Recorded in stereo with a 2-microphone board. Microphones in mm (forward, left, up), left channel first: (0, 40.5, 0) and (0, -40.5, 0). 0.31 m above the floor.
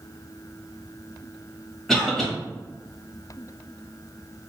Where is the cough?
5° left (ahead or behind), 1.4 m.